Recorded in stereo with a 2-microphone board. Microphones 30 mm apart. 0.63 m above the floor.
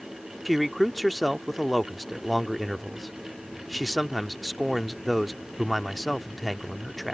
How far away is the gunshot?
No gunshot in this recording.